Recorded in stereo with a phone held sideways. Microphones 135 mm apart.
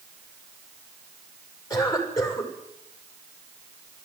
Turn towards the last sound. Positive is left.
turn(degrees=25)  # may be behind; listen again after turning